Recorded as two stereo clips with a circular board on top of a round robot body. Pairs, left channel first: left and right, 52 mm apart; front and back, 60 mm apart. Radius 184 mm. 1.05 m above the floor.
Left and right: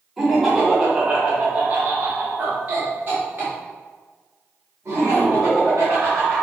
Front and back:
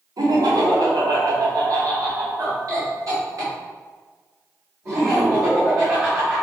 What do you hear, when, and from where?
0.2 s laughter: 175° right, 1.9 m; by 6.4 s 135° right, 4.5 m